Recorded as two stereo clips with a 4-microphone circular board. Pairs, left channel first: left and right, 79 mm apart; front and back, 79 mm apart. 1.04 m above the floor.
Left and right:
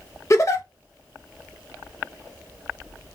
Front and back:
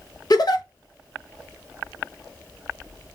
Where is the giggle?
40° left, 0.5 m.